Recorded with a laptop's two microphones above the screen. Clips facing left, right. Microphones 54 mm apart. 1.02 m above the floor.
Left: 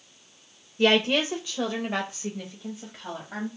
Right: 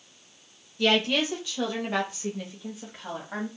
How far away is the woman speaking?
About 0.5 m.